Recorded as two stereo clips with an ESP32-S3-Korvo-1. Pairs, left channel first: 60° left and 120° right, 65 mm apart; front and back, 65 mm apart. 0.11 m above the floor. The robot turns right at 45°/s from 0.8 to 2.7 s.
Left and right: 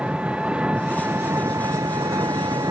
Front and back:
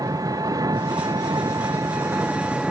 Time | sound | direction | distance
0.0 | an engine running | 165° left | ?